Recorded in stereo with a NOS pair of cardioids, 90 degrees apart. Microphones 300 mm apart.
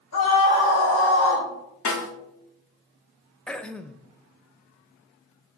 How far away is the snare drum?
About 3 m.